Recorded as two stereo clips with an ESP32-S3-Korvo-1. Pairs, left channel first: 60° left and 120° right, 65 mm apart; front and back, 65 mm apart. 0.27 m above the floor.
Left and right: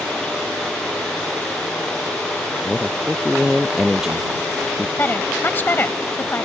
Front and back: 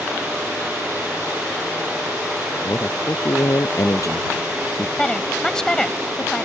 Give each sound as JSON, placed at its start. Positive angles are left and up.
{"t": 2.6, "sound": "a man speaking", "azimuth_deg": -35}
{"t": 5.0, "sound": "a woman speaking", "azimuth_deg": 70}